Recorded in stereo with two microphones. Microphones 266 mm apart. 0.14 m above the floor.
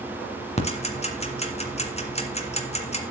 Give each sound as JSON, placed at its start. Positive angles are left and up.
{"t": 0.6, "sound": "ticking", "side_deg": 25, "distance_m": 1.8}